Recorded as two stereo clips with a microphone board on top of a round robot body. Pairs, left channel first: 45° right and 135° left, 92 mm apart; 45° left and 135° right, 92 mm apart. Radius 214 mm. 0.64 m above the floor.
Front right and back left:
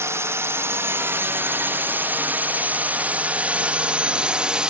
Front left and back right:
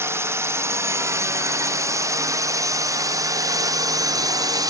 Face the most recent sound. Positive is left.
turn(degrees=-150)